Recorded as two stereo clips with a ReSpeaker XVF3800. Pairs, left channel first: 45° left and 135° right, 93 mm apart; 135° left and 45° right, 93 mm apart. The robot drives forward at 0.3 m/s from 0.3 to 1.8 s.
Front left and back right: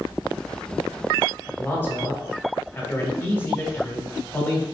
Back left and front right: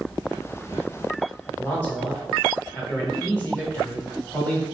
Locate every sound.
1.6 s a man speaking: 80° left, 1.1 m; by 4.7 s 85° left, 1.1 m